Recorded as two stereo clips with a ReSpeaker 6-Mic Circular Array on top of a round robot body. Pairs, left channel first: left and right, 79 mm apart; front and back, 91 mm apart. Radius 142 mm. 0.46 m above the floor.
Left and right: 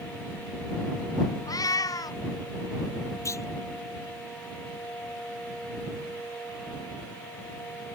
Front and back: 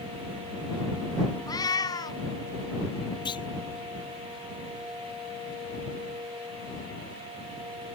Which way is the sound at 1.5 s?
50° left.